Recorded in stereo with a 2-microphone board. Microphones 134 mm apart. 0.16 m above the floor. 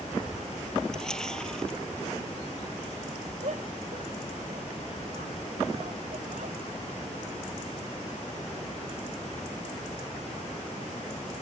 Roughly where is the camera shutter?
Centre.